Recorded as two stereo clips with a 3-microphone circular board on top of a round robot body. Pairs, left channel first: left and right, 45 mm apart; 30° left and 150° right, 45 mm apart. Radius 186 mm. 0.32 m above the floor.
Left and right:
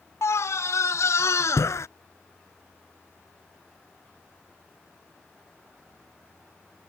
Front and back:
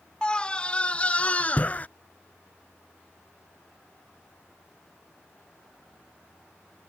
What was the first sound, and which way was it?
A scream, 100° left.